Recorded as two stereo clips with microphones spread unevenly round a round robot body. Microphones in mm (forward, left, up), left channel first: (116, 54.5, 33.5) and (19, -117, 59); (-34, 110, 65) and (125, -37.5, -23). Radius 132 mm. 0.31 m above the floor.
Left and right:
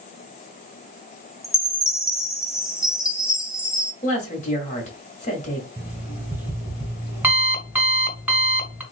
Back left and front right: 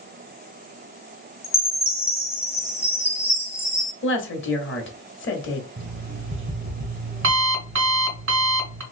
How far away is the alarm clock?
About 1.5 m.